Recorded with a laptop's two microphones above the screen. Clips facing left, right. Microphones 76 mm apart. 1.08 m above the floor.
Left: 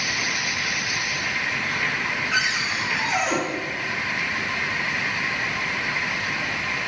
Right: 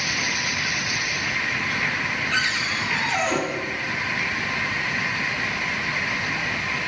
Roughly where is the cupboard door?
Centre.